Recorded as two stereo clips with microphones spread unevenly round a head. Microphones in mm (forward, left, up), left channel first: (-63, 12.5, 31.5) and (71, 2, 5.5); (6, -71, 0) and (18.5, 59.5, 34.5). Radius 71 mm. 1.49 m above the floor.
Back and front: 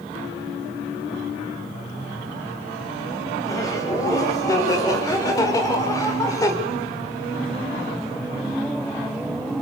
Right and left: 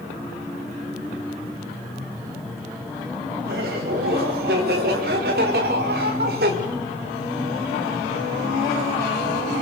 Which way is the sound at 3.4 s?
110° left.